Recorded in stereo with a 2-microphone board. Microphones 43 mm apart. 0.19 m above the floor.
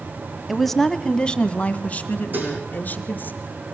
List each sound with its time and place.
0.5 s a woman speaking: centre (ahead or behind), 1.0 m; by 3.3 s 45° left (ahead or behind), 2.5 m
2.3 s dishes clattering: 45° right (ahead or behind), 6 m